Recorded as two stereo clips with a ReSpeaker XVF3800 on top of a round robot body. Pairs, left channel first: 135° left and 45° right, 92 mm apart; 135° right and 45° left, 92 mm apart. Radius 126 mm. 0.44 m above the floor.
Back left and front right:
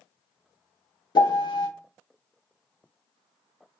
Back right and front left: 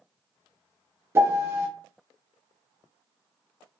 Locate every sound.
1.1 s a piano: 105° left, 1.1 m